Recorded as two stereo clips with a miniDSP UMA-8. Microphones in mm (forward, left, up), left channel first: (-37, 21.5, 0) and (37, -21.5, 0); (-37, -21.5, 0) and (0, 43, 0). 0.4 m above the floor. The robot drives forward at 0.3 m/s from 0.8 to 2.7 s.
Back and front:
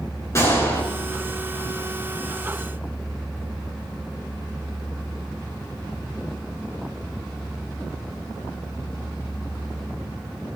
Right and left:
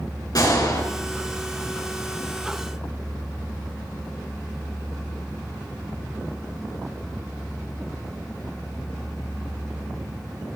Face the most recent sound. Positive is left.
turn(degrees=-155)